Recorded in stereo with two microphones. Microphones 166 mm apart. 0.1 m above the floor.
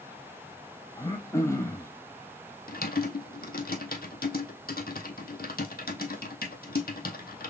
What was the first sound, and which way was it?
Throat clearing, 20° left (ahead or behind).